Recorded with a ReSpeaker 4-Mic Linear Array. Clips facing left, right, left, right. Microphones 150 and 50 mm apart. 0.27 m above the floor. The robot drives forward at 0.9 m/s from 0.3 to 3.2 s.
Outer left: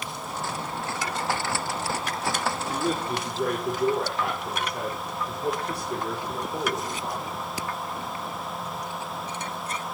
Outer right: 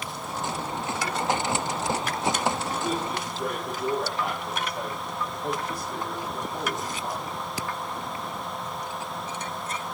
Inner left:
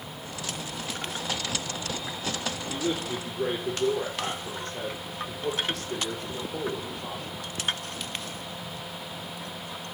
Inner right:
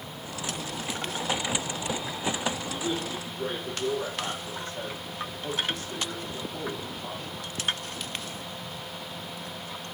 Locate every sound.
2.7 s a man speaking: 80° left, 5 m; by 7.2 s 75° left (ahead or behind), 5 m